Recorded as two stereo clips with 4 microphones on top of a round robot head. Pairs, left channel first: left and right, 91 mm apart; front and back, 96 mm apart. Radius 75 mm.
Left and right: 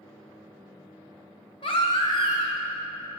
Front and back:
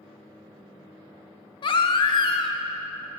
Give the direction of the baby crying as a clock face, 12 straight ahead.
11 o'clock.